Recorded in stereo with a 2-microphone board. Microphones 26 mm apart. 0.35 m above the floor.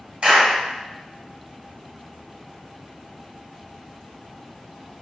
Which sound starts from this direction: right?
A clap, at 0.2 s.